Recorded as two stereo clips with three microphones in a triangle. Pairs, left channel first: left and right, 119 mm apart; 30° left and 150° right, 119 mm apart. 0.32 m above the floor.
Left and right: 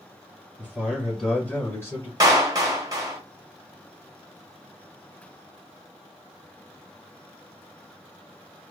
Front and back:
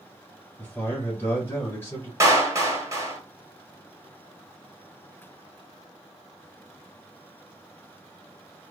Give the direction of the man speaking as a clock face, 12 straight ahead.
1 o'clock.